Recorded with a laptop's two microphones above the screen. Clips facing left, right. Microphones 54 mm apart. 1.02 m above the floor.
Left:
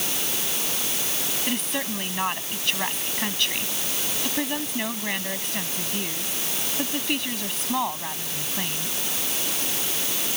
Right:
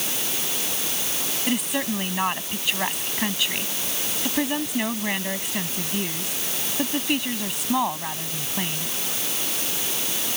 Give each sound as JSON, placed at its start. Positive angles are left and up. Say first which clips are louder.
{"t": 1.5, "sound": "a woman speaking", "louder": "right 4 dB", "side_deg": -10}